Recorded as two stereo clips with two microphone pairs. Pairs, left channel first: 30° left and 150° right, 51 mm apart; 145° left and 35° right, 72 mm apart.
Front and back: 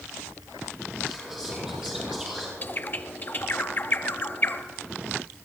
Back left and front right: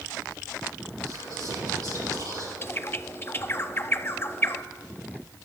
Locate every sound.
1.1 s whispering: 70° right, 4.5 m
2.6 s a bird: 85° left, 0.5 m